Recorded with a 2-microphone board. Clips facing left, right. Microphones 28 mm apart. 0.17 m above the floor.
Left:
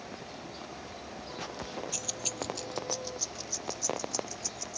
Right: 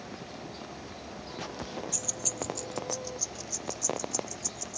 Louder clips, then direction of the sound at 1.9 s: Even; 35° left (ahead or behind).